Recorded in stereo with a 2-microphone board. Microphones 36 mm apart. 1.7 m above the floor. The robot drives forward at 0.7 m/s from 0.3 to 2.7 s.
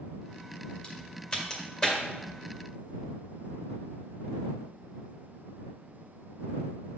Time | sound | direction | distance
0.8 | a crack | 30° left (ahead or behind) | 1.6 m